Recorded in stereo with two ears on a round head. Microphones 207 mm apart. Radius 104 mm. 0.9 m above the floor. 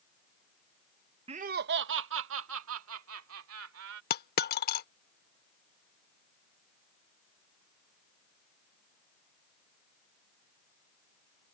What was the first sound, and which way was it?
Laughter, 25° right (ahead or behind).